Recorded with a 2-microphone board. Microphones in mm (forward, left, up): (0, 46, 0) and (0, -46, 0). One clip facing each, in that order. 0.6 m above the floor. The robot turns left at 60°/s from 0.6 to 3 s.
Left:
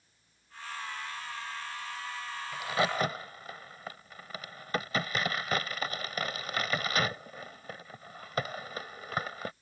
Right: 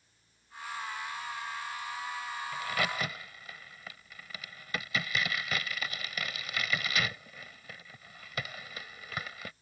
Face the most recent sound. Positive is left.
turn(degrees=40)  # may be behind; listen again after turning